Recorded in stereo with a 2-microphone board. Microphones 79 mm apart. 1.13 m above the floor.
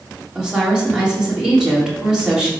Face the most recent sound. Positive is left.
turn(degrees=-10)  # may be behind; listen again after turning